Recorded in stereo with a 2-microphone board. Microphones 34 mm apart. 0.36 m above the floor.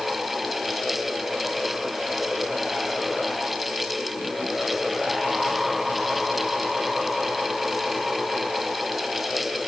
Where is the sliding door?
No sliding door in this recording.